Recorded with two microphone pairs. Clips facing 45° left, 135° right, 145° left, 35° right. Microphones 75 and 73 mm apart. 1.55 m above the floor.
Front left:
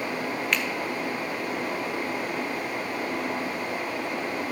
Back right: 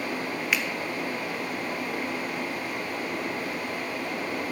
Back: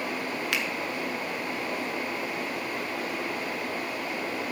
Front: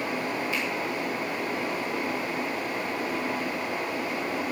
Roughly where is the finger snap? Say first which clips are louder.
Even, even; behind left.